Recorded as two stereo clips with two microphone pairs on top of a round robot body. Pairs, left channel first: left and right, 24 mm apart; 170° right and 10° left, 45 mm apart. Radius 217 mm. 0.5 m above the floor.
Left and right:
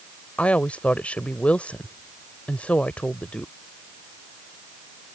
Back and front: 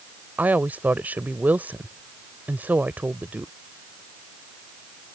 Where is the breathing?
I don't hear breathing.